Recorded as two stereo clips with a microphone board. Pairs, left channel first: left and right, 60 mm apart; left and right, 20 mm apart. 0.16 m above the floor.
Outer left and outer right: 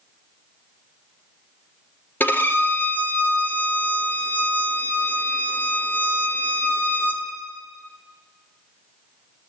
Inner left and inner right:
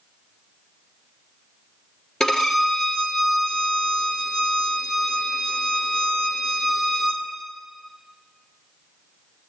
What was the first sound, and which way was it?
A violin, 30° left (ahead or behind).